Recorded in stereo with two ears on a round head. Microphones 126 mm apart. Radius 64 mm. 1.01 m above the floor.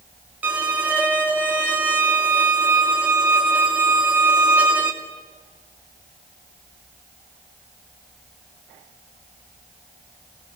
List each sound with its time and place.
0.4 s a violin: 10° right (ahead or behind), 2.5 m